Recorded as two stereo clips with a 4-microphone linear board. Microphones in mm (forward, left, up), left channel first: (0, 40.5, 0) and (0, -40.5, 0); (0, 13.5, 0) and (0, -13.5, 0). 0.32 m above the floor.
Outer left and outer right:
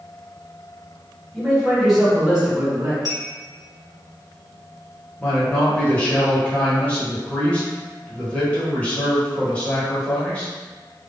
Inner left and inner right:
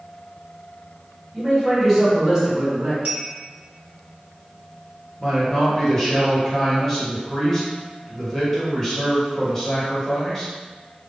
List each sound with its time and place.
1.3 s a man speaking: 5° left (ahead or behind), 1.4 m; by 3.0 s 20° right (ahead or behind), 1.2 m
3.0 s a clink: 55° right (ahead or behind), 1.9 m
5.2 s a man speaking: 15° left (ahead or behind), 0.9 m